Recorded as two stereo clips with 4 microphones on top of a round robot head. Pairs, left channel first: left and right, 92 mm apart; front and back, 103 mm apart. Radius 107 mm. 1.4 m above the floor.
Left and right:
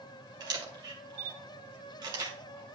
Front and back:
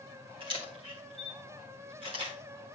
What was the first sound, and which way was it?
A camera shutter, 130° right.